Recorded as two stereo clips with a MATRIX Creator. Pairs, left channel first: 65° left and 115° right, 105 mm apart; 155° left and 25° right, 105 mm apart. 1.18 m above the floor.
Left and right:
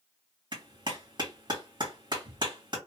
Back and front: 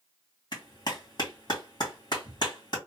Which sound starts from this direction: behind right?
A clap, at 0.5 s.